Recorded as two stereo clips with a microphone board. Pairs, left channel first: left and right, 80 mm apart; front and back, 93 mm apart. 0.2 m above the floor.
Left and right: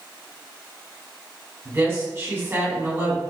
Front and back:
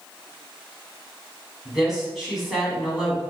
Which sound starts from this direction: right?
A woman speaking, at 1.6 s.